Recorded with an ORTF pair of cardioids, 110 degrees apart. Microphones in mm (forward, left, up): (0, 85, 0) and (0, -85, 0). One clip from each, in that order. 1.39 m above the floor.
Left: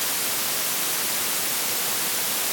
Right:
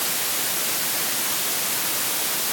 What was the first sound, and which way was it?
Only background noise.